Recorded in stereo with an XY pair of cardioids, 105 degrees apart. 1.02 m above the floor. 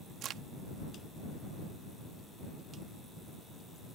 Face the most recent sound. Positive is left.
turn(degrees=-70)